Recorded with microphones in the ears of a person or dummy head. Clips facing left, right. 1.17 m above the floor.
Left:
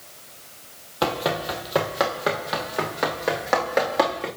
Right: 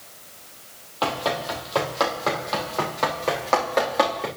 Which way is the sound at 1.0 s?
25° left (ahead or behind).